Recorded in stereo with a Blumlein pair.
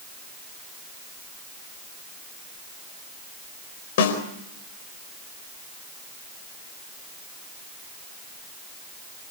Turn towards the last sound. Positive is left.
turn(degrees=55)